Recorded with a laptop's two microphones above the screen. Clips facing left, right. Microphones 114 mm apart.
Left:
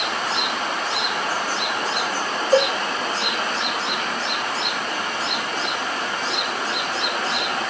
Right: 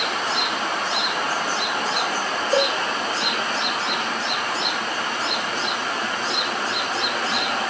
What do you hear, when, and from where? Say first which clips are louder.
2.5 s a cowbell: left 4 dB; 50° left (ahead or behind), 1.2 m